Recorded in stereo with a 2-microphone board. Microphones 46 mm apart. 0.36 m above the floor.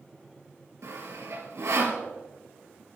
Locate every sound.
0.8 s sawing: 85° right, 3 m